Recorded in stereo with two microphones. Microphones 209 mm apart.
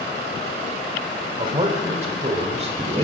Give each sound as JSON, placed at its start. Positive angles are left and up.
{"t": 1.4, "sound": "a man speaking", "side_deg": -30, "distance_m": 1.7}